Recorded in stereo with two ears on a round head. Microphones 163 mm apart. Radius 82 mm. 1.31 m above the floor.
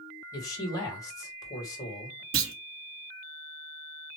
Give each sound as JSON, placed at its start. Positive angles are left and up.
{"t": 0.3, "sound": "a man speaking", "side_deg": 20, "distance_m": 2.0}
{"t": 2.3, "sound": "a clunk", "side_deg": -85, "distance_m": 0.9}